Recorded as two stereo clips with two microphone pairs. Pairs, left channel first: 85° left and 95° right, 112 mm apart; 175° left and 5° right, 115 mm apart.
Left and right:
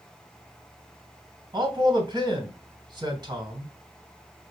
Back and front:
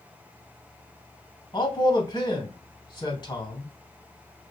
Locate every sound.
1.5 s a man speaking: 140° right, 3 m